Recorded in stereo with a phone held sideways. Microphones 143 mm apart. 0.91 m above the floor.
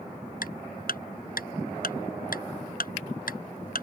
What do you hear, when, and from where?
0.4 s ticking: 80° left